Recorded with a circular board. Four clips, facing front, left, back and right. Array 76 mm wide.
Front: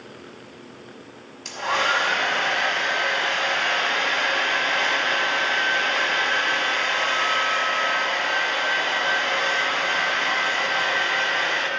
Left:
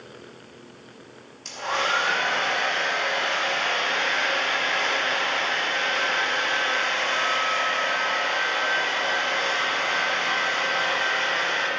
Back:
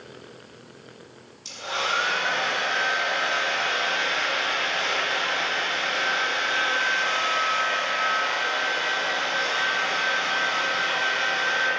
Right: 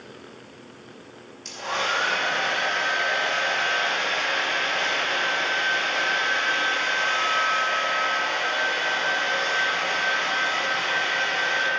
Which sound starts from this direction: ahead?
A hair dryer, at 1.4 s.